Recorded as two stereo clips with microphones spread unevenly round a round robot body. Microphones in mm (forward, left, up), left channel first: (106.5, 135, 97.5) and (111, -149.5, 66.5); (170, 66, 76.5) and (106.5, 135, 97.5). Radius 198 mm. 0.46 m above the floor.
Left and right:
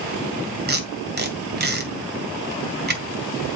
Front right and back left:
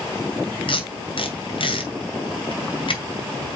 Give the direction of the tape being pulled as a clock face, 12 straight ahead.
1 o'clock.